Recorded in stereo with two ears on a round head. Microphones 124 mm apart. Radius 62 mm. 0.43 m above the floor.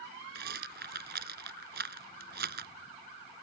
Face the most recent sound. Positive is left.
turn(degrees=-80)